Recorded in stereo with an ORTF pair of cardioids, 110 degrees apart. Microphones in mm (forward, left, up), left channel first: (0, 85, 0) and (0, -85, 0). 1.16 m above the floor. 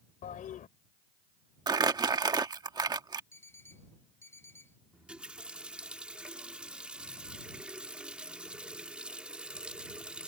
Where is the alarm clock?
15° left.